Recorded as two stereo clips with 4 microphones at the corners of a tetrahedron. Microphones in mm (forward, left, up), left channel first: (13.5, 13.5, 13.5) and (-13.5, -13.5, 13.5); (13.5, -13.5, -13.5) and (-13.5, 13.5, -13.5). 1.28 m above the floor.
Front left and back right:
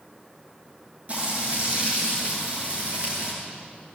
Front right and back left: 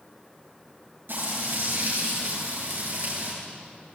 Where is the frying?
170° left, 10 m.